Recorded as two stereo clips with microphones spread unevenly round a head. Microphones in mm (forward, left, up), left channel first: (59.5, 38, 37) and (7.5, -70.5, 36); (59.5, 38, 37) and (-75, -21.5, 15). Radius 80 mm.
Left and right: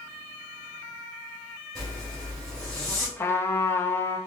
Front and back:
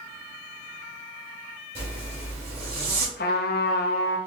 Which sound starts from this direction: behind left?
A zipper, at 1.8 s.